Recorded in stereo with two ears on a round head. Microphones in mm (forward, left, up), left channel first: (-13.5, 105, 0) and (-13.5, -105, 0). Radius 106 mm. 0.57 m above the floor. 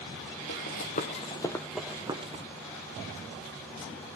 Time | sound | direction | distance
0.5 | running footsteps | 50° left (ahead or behind) | 1.4 m